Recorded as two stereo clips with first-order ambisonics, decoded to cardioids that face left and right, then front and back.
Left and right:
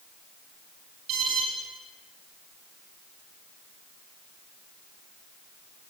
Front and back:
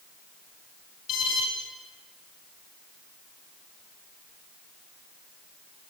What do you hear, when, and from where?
1.1 s an alarm: 45° right, 8 m